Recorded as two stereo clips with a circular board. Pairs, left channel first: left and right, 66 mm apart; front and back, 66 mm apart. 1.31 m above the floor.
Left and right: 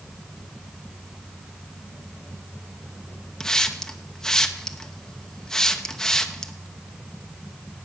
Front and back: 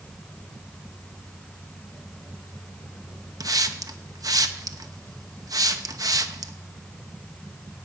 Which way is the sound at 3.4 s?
170° left.